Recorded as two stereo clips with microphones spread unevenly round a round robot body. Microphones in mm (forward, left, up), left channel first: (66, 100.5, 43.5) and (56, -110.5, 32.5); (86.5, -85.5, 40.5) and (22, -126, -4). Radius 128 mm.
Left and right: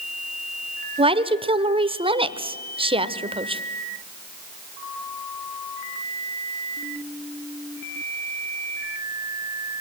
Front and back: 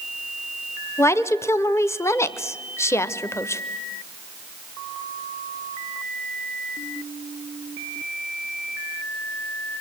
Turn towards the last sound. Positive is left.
turn(degrees=-50)